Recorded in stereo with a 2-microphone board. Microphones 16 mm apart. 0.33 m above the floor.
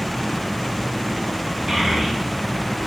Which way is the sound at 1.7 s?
45° right (ahead or behind).